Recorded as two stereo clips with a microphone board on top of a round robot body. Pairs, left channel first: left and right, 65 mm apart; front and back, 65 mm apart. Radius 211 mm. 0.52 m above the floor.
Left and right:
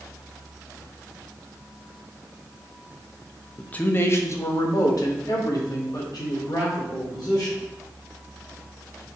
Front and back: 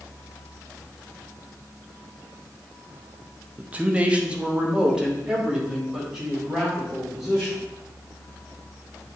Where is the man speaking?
145° left, 0.8 m; by 7.6 s 95° left, 3 m.